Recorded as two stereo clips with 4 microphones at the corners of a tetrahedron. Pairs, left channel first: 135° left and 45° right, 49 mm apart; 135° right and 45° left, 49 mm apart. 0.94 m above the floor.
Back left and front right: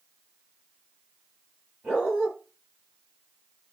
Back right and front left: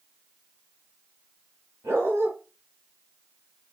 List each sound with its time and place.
1.8 s a dog barking: 15° left, 6.5 m